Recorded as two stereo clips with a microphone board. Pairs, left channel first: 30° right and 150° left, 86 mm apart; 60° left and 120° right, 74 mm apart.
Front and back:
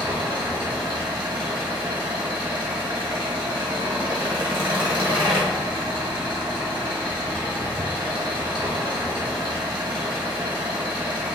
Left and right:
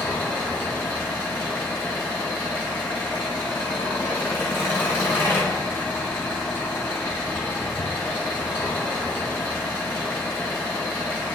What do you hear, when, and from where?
0.0 s an engine running: 120° left, 1.0 m